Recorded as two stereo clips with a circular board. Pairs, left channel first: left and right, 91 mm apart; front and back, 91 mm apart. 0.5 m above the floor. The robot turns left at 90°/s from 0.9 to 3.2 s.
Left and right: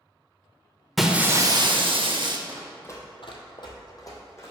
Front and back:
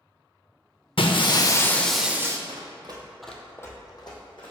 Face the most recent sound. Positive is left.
turn(degrees=30)